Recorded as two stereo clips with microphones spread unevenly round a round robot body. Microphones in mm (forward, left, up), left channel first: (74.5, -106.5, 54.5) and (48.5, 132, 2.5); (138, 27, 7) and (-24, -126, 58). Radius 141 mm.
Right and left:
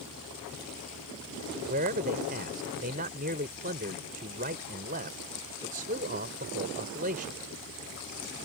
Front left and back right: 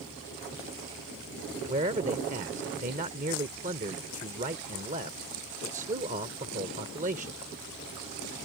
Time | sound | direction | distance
1.7 | a man speaking | 155° left | ?